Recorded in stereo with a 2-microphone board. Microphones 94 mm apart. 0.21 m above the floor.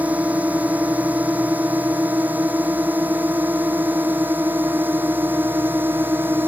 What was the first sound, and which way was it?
A drone, 20° right (ahead or behind).